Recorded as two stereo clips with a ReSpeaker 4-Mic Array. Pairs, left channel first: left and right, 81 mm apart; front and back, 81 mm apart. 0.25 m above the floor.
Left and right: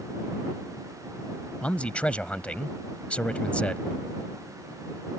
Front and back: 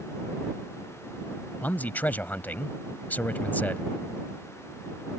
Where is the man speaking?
35° left.